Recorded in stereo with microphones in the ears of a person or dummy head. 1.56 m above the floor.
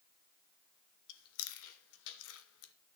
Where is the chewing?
70° left (ahead or behind), 1.1 m.